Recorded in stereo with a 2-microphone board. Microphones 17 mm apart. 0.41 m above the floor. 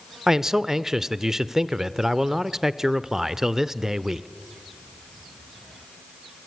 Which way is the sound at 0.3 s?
25° right (ahead or behind).